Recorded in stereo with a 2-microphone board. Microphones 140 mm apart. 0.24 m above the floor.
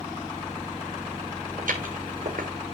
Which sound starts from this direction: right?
Footsteps, at 1.6 s.